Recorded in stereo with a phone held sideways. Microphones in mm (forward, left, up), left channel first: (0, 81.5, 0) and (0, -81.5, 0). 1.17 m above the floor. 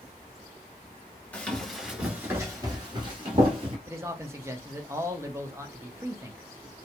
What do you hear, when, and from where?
1.3 s running footsteps: 10° left (ahead or behind), 1.1 m; by 3.8 s 40° right (ahead or behind), 1.6 m
3.9 s a man speaking: 15° right (ahead or behind), 0.6 m